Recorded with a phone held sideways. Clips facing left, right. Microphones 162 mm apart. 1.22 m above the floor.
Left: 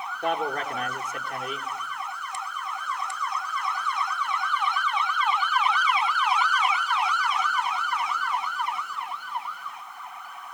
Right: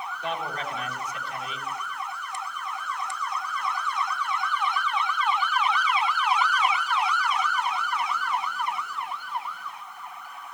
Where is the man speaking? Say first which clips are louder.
Left 5 dB; 50° left (ahead or behind), 3.5 m.